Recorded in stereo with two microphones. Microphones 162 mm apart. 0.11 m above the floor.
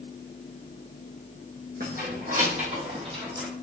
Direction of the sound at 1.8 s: 65° right (ahead or behind).